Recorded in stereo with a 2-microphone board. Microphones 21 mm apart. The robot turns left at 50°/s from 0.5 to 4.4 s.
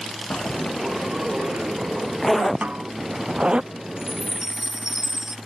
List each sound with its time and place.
0.3 s a zipper: 80° left; by 3.6 s 55° right (ahead or behind)
2.6 s a snare drum: 70° right (ahead or behind); by 2.9 s 60° right (ahead or behind)
4.0 s a chime: 40° right (ahead or behind); by 5.4 s 15° right (ahead or behind)